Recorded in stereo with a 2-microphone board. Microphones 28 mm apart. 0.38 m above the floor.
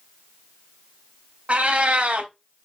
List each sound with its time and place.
1.5 s a cat meowing: 50° right (ahead or behind), 0.6 m